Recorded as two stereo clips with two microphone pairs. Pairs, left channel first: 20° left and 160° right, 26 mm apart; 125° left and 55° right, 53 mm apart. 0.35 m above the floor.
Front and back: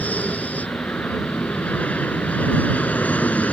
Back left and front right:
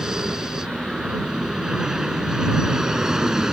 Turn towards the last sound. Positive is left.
turn(degrees=25)